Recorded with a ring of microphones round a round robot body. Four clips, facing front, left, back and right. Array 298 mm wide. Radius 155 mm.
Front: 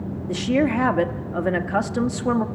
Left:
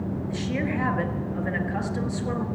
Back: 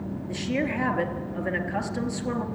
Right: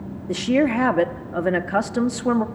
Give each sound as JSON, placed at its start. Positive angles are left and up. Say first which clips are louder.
{"t": 0.3, "sound": "a woman speaking", "louder": "right 11 dB, front 8 dB", "azimuth_deg": -60, "distance_m": 1.5}